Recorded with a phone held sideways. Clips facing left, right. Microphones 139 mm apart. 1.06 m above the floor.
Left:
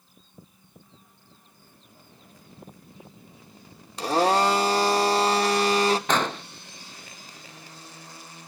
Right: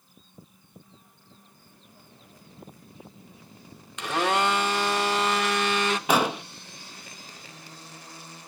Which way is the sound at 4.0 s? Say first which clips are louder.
Left 4 dB; 35° left (ahead or behind).